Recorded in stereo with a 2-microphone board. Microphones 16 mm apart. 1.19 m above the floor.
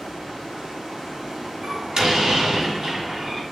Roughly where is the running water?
Right.